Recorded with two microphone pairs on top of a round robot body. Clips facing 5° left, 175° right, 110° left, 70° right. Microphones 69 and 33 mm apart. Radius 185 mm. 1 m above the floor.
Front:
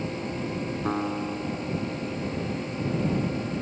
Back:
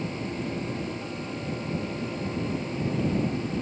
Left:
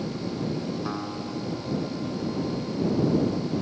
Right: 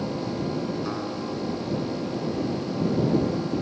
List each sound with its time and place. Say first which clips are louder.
0.8 s a guitar: front 6 dB, right 2 dB; 25° left